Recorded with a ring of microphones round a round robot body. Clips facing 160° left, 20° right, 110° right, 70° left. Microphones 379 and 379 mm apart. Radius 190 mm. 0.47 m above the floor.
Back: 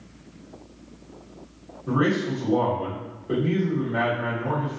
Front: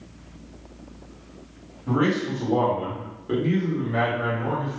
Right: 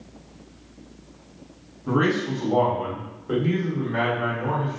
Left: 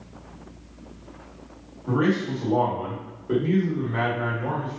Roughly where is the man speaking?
Right.